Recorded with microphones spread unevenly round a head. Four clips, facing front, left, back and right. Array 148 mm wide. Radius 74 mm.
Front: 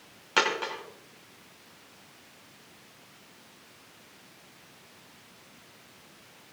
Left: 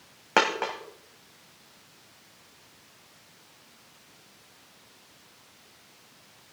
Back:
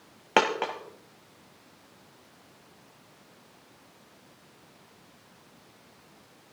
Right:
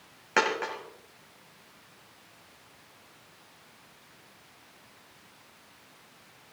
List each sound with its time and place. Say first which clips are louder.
0.4 s a dropped coin: left 3 dB, back 4 dB; 155° left, 1.6 m